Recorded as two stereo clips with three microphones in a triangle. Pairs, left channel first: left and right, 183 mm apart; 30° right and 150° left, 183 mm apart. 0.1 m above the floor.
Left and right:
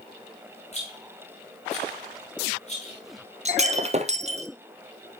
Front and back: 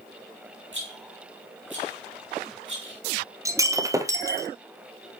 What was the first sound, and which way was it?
A rattle, 145° left.